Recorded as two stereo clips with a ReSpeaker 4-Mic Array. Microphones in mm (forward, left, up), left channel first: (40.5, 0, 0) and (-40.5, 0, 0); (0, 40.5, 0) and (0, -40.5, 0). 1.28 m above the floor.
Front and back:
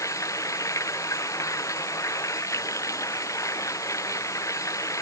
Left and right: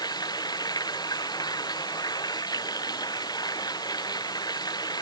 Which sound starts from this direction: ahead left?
Running water, at 0.0 s.